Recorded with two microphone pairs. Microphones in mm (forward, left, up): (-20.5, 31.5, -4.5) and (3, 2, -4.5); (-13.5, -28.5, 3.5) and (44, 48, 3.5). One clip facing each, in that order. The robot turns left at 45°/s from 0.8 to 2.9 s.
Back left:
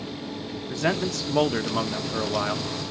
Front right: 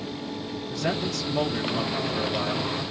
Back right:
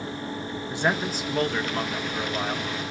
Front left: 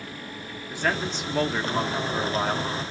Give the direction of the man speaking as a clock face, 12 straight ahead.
7 o'clock.